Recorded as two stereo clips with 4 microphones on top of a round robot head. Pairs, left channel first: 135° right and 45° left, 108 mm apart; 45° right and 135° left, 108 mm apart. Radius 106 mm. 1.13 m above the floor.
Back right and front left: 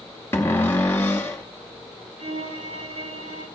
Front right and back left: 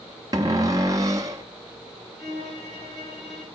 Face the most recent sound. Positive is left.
turn(degrees=50)